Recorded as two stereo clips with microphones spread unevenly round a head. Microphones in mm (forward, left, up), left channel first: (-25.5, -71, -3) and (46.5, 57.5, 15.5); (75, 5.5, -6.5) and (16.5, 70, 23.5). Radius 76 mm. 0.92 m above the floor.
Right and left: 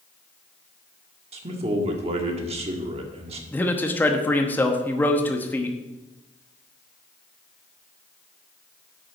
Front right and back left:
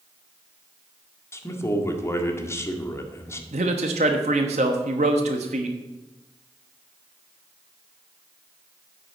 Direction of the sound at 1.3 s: 10° left.